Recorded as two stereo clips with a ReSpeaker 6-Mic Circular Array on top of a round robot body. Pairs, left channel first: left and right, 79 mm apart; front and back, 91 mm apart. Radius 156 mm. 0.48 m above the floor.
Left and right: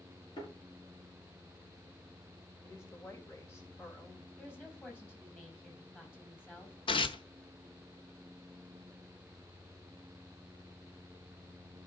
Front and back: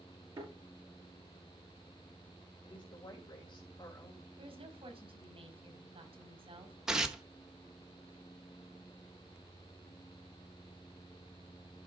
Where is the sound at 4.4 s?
155° left, 3.5 m.